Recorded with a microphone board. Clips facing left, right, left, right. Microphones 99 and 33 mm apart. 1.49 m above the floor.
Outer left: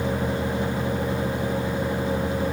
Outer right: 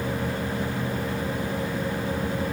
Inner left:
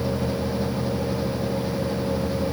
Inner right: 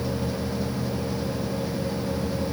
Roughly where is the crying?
No crying in this recording.